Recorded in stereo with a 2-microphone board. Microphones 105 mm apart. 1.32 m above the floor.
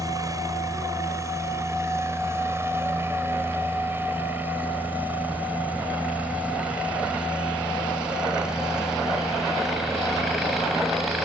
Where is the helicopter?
35° right (ahead or behind); by 11.2 s centre (ahead or behind).